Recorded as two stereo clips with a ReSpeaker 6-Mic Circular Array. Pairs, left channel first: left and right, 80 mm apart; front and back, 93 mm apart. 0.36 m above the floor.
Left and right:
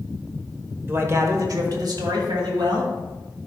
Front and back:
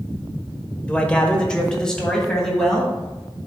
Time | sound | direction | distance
0.9 | a man speaking | 65° right | 1.0 m